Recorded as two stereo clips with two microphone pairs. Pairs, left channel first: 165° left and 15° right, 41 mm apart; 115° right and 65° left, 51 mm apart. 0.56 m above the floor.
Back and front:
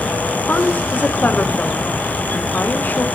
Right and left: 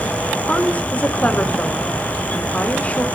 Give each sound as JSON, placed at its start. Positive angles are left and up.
{"t": 0.5, "sound": "a woman speaking", "azimuth_deg": -170, "distance_m": 1.7}